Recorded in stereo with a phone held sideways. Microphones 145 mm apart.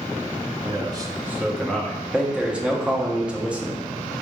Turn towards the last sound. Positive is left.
turn(degrees=-5)  # may be behind; listen again after turning